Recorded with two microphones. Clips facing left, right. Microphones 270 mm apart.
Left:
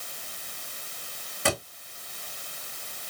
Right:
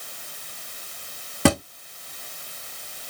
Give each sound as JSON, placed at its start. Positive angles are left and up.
{"t": 1.4, "sound": "a thud", "side_deg": -70, "distance_m": 2.5}